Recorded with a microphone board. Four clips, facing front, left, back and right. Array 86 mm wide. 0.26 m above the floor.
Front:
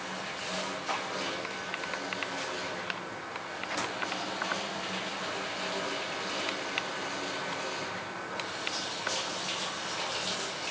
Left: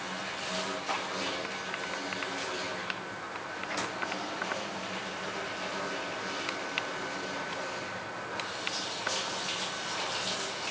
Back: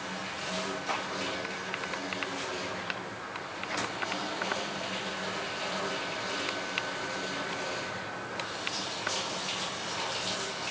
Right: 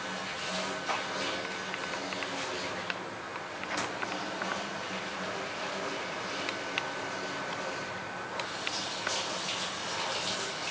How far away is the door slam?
No door slam in this recording.